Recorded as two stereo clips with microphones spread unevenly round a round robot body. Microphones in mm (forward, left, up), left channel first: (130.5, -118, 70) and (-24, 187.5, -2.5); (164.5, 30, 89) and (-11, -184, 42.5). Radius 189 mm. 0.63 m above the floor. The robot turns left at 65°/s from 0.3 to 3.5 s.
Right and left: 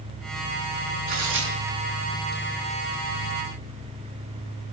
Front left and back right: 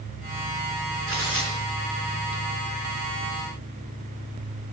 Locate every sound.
1.1 s tearing paper: 175° left, 4.5 m; by 2.4 s 90° left, 4.5 m